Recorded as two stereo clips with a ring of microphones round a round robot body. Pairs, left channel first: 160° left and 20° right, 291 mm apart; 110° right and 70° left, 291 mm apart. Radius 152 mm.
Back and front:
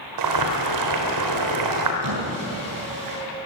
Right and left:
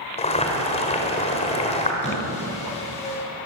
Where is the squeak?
45° right, 8.5 m.